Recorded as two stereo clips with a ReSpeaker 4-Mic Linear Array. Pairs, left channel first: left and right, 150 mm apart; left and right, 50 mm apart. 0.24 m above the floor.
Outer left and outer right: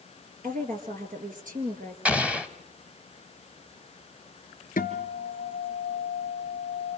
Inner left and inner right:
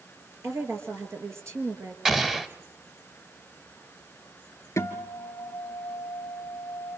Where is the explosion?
10° right (ahead or behind), 1.2 m.